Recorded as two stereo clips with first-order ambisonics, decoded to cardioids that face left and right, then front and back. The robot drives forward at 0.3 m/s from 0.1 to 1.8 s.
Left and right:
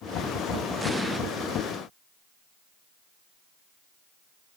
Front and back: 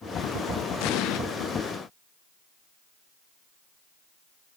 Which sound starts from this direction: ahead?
An explosion, at 0.8 s.